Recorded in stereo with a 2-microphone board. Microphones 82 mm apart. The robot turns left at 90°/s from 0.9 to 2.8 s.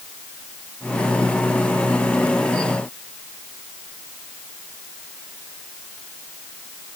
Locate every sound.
Only background noise.